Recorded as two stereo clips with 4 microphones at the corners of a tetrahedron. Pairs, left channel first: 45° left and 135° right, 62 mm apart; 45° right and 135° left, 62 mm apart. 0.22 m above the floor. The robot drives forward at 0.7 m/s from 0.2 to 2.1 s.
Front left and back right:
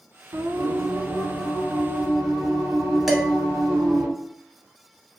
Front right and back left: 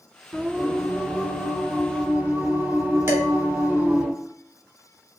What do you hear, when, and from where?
0.3 s singing: 135° right, 0.5 m; by 4.1 s 165° right, 1.6 m
3.1 s dishes clattering: 135° left, 0.8 m